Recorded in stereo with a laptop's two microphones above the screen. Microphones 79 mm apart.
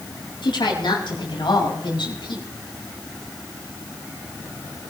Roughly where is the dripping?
I don't hear dripping.